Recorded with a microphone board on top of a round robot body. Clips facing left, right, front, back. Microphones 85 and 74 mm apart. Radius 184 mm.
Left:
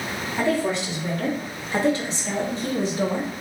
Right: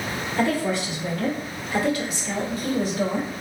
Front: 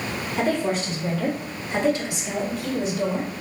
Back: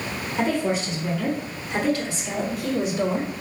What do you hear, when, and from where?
0.4 s a woman speaking: 25° left, 1.9 m; by 3.3 s 160° left, 1.1 m